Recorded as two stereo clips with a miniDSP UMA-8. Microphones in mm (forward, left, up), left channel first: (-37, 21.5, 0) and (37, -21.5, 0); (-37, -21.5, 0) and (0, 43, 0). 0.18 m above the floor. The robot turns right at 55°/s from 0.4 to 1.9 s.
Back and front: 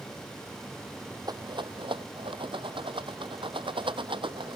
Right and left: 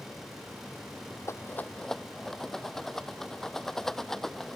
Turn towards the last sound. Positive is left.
turn(degrees=-35)